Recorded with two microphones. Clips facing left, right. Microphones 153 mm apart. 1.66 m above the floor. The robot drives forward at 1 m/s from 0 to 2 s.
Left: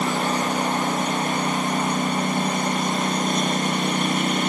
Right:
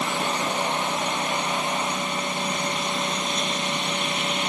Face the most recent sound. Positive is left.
turn(degrees=45)  # may be behind; listen again after turning